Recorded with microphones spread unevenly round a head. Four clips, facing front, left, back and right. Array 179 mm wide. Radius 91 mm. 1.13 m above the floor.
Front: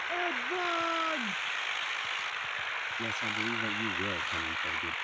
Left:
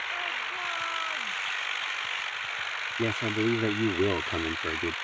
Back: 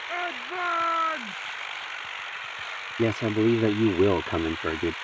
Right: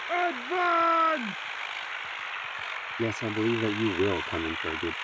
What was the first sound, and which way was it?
A shout, 80° right.